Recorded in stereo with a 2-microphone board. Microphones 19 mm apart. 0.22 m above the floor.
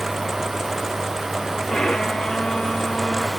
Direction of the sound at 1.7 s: 55° left (ahead or behind).